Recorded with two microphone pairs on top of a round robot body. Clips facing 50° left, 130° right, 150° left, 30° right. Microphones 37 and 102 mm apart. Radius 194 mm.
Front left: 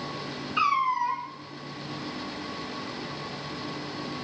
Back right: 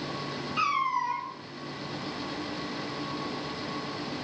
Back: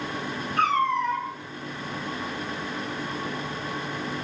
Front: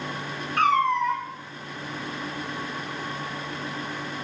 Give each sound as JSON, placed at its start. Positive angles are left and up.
{"t": 0.6, "sound": "a cat meowing", "azimuth_deg": -15, "distance_m": 1.3}